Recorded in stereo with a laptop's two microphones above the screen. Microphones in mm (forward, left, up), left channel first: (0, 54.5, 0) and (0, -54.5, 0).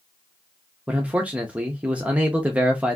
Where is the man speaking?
10° right (ahead or behind), 0.5 m.